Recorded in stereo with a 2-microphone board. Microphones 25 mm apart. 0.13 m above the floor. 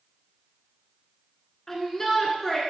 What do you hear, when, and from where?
1.7 s a shout: 15° left (ahead or behind), 1.4 m